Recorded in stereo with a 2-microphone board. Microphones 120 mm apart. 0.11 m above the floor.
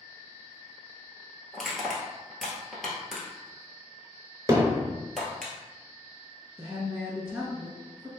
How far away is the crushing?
About 1.1 m.